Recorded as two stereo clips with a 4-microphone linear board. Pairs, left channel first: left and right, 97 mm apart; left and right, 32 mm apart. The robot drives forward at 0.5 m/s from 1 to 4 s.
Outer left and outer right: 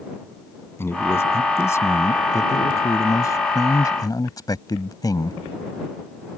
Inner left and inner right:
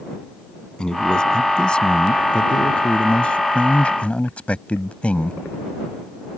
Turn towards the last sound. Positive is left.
turn(degrees=40)  # may be behind; listen again after turning